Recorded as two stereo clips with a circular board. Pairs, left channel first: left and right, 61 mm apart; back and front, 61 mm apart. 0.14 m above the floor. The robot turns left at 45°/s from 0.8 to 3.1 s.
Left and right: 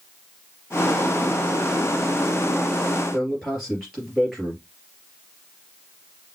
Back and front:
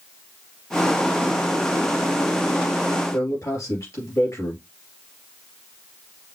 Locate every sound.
3.1 s a man speaking: 175° right, 3.5 m